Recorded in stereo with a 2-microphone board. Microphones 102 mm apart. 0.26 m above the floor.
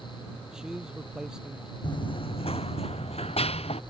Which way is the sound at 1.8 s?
50° left (ahead or behind).